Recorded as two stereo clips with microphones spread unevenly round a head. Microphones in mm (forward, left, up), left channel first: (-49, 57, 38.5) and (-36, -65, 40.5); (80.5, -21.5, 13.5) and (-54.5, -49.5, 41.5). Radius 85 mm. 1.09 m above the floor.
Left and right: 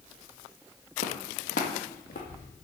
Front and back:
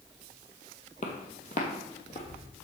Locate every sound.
1.0 s footsteps: 65° left, 1.9 m